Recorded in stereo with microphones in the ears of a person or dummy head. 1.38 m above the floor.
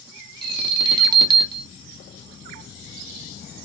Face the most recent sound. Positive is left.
turn(degrees=-30)  # may be behind; listen again after turning